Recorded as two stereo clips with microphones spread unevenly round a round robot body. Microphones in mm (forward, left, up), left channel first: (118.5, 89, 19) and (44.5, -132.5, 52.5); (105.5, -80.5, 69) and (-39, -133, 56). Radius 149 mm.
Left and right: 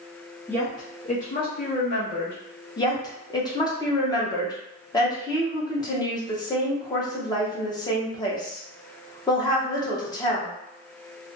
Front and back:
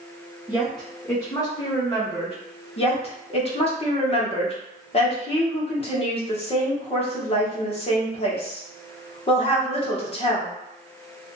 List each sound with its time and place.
0.5 s a woman speaking: 140° left, 0.7 m; by 2.4 s 60° left, 1.1 m
2.8 s a woman speaking: 30° left, 0.9 m